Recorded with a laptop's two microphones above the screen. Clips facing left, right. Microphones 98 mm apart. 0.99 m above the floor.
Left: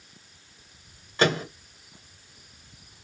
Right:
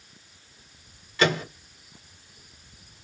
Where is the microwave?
35° left (ahead or behind), 1.0 m.